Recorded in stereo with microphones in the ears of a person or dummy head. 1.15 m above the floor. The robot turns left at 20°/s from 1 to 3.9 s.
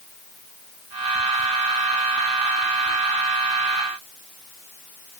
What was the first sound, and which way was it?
Only background noise.